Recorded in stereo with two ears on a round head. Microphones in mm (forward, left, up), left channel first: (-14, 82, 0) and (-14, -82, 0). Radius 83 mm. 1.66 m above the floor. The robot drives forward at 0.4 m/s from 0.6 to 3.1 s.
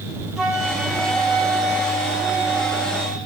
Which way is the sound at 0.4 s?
5° right (ahead or behind).